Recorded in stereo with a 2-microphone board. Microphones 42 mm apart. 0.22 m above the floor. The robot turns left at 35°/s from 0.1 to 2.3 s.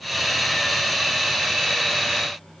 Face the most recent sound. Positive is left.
No sound to turn to.